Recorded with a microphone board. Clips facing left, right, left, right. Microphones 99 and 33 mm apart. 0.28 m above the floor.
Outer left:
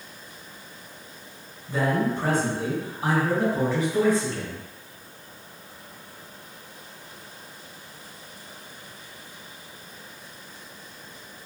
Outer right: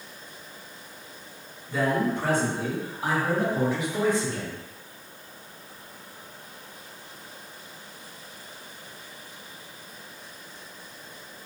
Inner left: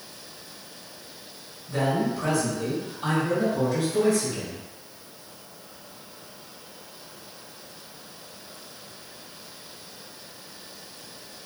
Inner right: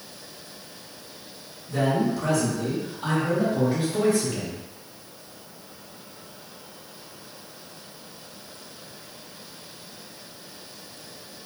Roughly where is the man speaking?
Left.